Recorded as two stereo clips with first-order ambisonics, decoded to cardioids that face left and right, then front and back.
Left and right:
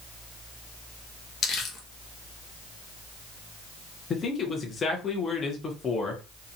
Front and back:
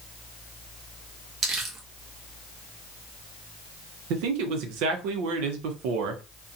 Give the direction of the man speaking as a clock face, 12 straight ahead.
7 o'clock.